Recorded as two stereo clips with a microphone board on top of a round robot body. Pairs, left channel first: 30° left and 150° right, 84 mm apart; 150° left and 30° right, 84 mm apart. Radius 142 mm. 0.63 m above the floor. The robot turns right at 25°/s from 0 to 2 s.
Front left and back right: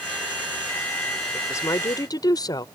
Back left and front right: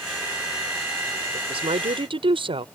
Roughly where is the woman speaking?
Ahead right.